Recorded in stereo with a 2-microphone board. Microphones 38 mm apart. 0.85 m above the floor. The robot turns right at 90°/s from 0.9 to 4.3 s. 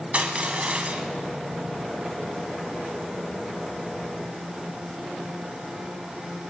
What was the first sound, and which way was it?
Crushing, 40° right (ahead or behind).